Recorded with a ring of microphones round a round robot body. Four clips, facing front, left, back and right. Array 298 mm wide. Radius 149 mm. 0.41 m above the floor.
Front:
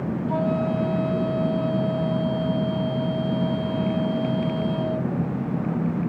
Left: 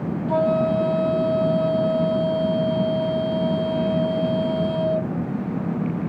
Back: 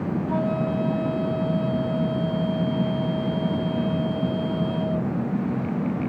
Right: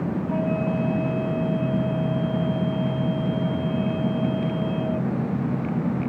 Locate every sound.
0.3 s a flute: 90° left